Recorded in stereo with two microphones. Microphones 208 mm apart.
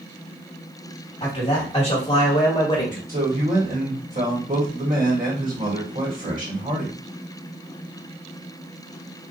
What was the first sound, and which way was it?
A man speaking, 30° left (ahead or behind).